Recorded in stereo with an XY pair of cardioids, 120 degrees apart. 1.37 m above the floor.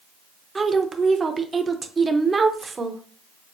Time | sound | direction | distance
0.6 | a woman speaking | 25° right | 0.9 m